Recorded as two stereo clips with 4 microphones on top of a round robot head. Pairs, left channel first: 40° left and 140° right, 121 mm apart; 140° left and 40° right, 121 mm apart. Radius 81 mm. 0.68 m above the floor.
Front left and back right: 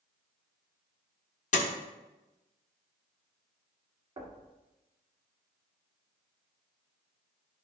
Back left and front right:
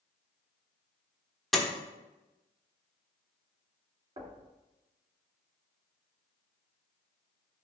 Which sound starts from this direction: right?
Knocking, at 4.2 s.